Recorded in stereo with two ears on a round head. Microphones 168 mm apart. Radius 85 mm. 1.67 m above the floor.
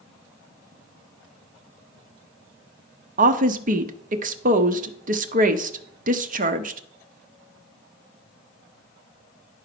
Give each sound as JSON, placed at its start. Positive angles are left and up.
{"t": 3.2, "sound": "a woman speaking", "side_deg": -45, "distance_m": 0.9}